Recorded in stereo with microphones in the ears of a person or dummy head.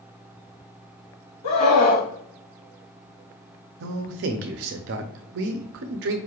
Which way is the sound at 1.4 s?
40° left (ahead or behind).